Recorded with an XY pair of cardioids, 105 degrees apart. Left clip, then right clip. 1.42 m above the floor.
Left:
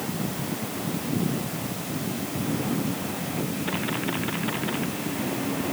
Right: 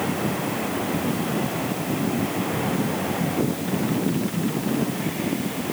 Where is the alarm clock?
I don't hear an alarm clock.